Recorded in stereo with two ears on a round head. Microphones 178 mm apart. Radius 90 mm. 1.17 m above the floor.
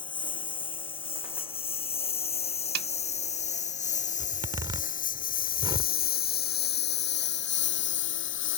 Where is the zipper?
20° right (ahead or behind).